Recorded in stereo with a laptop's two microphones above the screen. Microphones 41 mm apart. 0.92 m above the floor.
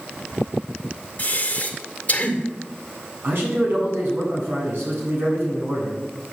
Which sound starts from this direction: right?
A man speaking, at 3.2 s.